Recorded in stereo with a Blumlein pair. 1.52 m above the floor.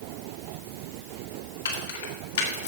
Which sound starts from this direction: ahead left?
Keys jangling, at 1.6 s.